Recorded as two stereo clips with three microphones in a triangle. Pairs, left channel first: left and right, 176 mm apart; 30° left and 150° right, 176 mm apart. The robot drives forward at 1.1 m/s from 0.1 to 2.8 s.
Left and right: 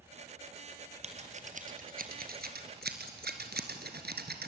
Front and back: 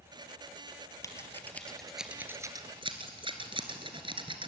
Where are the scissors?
40° right, 2.5 m; by 4.5 s 90° right, 1.8 m.